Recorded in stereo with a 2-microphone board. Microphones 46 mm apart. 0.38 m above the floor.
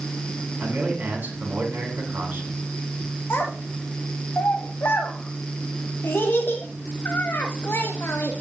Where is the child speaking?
60° left (ahead or behind), 1.1 m.